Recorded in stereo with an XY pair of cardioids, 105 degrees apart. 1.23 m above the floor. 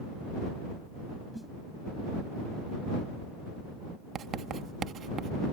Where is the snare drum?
Straight ahead.